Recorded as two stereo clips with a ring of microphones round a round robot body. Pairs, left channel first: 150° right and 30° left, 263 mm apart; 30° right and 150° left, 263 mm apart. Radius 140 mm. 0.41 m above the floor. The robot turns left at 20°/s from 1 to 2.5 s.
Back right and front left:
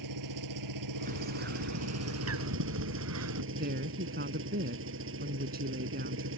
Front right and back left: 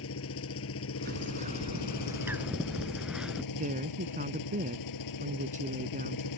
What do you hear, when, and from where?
0.0 s an engine running: 15° left; by 6.4 s 15° right
1.1 s a bird: 90° left; by 3.4 s 65° left
3.5 s a woman speaking: 85° left